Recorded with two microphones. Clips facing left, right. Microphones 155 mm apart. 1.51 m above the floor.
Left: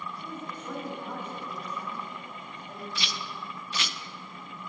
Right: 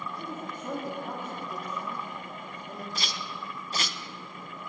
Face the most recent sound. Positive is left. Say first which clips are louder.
# right 1 dB
turn(degrees=-45)  # may be behind; listen again after turning